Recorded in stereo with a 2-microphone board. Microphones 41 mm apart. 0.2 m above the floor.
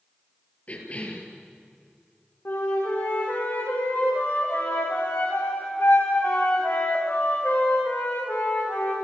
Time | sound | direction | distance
0.7 | a cough | 35° left (ahead or behind) | 5 m
2.5 | a flute | 60° left (ahead or behind) | 9.5 m